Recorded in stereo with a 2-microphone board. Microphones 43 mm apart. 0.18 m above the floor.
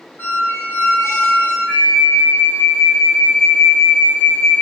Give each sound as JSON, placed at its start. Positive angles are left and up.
{"t": 0.2, "sound": "a squeak", "side_deg": 50, "distance_m": 1.5}
{"t": 1.7, "sound": "a flute", "side_deg": 15, "distance_m": 1.3}